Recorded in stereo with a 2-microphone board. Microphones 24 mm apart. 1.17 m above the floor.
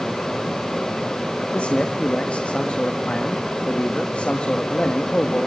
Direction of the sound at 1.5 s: 65° left (ahead or behind).